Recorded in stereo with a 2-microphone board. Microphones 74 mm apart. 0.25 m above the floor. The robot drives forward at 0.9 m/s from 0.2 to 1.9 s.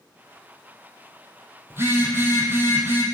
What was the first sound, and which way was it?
A phone buzzing, 30° right (ahead or behind).